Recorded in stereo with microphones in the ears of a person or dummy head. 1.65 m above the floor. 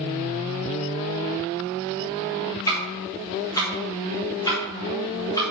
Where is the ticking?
15° left (ahead or behind), 2 m.